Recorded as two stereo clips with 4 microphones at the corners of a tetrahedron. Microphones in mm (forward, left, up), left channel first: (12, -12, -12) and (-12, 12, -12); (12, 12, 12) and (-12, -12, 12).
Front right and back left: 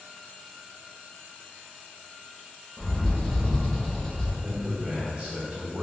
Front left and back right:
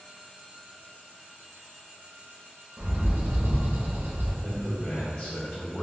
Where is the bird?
120° right, 0.7 m.